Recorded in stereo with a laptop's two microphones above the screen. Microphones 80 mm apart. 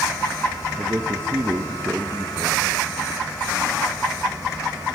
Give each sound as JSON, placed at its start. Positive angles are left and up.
{"t": 0.8, "sound": "a man speaking", "side_deg": -30, "distance_m": 0.8}